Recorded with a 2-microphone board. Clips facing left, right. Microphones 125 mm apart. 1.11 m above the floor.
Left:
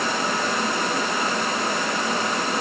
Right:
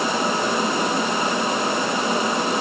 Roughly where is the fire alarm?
No fire alarm in this recording.